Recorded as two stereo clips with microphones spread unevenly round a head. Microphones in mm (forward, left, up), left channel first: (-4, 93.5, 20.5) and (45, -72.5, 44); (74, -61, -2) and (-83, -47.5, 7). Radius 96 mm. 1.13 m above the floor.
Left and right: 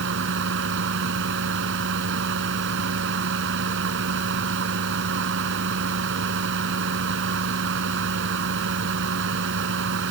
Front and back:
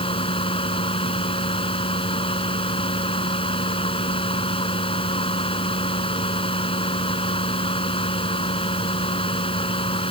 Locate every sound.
0.0 s a fan: 60° right